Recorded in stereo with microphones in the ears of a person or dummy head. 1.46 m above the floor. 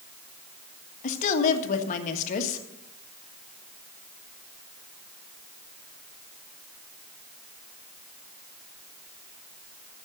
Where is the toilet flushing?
I don't hear a toilet flushing.